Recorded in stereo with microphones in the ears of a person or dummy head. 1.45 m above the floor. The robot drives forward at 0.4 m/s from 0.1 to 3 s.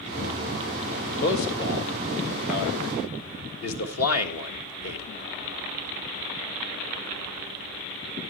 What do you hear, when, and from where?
1.2 s a man speaking: 60° left (ahead or behind), 1.8 m; by 5.1 s 80° left, 1.6 m